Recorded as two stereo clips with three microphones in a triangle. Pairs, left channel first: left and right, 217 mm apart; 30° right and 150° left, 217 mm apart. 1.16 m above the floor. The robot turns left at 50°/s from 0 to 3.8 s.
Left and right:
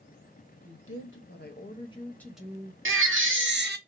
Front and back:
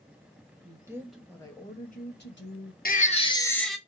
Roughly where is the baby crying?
Right.